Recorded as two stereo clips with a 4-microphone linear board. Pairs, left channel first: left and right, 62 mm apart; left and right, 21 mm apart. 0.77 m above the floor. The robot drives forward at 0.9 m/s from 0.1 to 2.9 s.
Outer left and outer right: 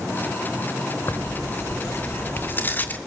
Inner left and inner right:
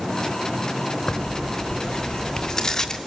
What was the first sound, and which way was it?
Tearing paper, 55° left (ahead or behind).